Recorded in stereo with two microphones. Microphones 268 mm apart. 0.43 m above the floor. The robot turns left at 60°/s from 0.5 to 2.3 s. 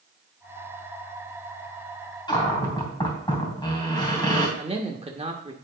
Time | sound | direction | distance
2.3 | a cupboard door | 15° left (ahead or behind) | 3 m
4.6 | a man speaking | 20° right (ahead or behind) | 0.8 m